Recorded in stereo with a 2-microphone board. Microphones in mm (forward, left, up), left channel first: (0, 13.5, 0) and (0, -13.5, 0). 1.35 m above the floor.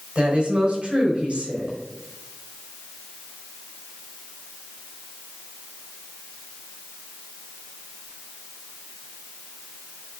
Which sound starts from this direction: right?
A woman speaking, at 0.1 s.